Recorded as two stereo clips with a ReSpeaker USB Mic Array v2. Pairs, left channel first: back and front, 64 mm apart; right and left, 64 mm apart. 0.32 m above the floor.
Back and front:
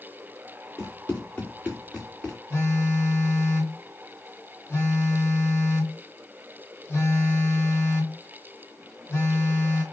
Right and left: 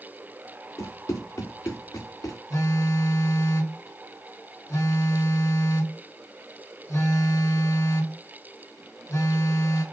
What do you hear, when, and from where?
0.8 s running footsteps: 120° right, 2.5 m; by 2.4 s 105° right, 1.7 m
2.5 s a phone buzzing: 125° right, 3 m